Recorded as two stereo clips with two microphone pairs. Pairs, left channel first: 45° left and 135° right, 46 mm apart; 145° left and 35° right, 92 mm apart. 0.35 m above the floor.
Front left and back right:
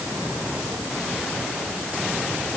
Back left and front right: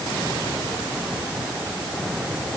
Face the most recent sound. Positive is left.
No sound to turn to.